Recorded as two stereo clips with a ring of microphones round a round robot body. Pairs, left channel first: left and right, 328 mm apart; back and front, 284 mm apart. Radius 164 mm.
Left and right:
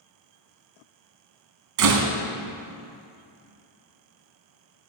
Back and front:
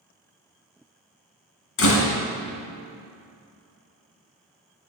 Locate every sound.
1.8 s a door slam: 130° right, 1.8 m